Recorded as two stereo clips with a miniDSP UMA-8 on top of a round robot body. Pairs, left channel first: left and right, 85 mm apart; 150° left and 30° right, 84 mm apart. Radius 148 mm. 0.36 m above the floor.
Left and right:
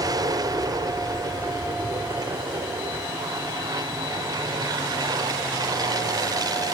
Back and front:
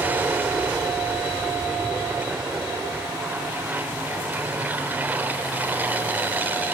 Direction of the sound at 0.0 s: 95° right.